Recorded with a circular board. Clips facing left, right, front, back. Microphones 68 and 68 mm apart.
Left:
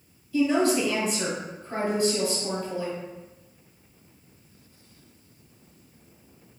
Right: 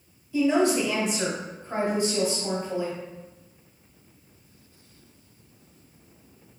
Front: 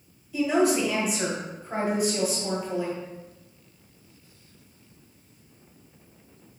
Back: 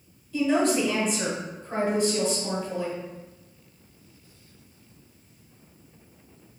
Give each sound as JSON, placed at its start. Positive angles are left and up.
{"t": 0.3, "sound": "a woman speaking", "azimuth_deg": -70, "distance_m": 1.5}